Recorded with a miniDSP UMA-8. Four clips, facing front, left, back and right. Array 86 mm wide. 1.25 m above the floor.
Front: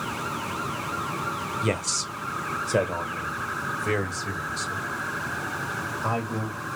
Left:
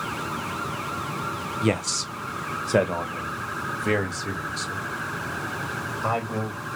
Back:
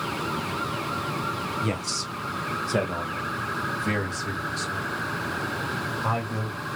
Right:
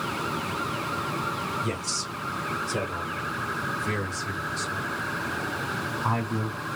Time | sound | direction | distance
1.6 | a man speaking | 65° left | 0.8 m